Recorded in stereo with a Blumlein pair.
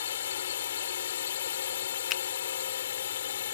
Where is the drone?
60° left.